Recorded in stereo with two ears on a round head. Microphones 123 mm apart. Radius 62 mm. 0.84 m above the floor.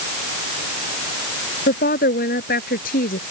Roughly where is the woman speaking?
Left.